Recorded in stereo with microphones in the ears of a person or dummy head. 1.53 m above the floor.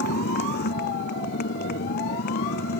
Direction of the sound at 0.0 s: 60° left (ahead or behind).